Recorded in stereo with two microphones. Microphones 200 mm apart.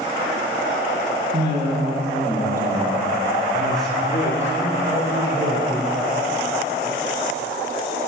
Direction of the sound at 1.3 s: 35° right (ahead or behind).